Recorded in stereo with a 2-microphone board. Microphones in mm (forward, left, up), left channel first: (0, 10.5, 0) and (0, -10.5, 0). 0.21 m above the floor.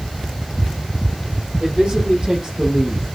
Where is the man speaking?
40° right (ahead or behind), 7.5 m; by 3.0 s 25° right (ahead or behind), 7.5 m.